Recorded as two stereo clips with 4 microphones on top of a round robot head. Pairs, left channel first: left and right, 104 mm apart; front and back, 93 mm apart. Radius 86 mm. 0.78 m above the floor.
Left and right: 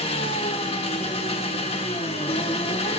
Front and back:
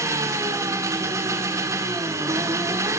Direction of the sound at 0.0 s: 125° left.